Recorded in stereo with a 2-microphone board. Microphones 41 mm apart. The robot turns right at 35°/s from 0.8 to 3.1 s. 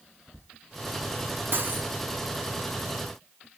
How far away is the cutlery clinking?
About 1.1 m.